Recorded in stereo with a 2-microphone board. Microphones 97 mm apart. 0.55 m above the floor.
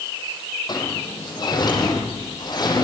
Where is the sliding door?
45° left (ahead or behind), 9 m.